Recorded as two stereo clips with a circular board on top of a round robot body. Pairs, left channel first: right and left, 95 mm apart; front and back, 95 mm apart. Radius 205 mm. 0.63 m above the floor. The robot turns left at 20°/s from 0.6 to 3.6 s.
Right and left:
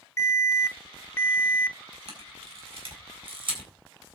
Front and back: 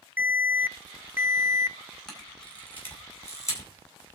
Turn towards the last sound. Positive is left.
turn(degrees=55)